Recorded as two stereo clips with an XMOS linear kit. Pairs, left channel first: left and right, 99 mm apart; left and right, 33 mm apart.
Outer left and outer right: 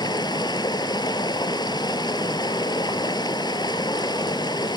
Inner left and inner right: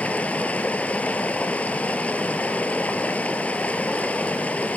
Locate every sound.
0.0 s running water: 45° left (ahead or behind), 1.1 m